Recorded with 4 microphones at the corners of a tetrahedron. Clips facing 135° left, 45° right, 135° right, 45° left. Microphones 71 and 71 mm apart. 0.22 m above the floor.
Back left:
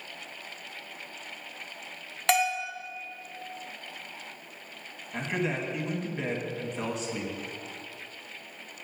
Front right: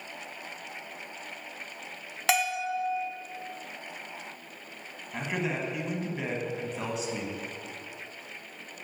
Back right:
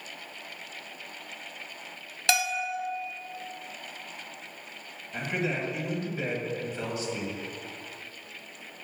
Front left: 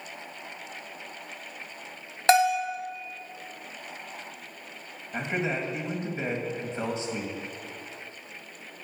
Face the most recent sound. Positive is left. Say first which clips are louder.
# back left 1 dB, front left 1 dB
turn(degrees=35)